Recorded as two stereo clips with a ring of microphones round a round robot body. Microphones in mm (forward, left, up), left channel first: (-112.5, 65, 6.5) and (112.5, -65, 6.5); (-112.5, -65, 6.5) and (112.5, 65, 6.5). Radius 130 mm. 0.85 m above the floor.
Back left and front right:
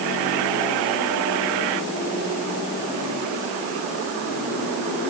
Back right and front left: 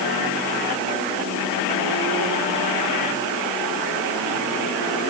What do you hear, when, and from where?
Only background noise.